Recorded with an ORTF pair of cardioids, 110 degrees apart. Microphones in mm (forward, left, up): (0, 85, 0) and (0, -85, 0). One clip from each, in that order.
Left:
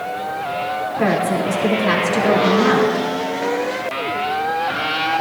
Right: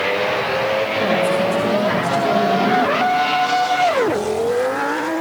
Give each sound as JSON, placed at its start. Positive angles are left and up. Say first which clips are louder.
{"t": 1.0, "sound": "a woman speaking", "louder": "left 1 dB", "azimuth_deg": 35, "distance_m": 4.0}